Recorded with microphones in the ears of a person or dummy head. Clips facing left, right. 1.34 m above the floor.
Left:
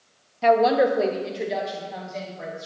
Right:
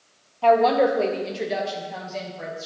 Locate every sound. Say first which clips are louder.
0.4 s a woman speaking: even; 25° left (ahead or behind), 0.6 m; by 2.7 s 5° right (ahead or behind), 2 m